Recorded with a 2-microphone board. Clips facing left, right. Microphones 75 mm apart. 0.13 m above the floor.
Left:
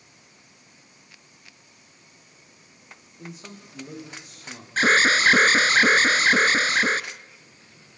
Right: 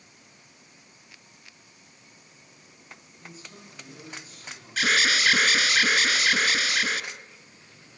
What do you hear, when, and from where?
3.2 s a man speaking: 70° left (ahead or behind), 7.5 m
4.8 s an alarm: 35° left (ahead or behind), 1.1 m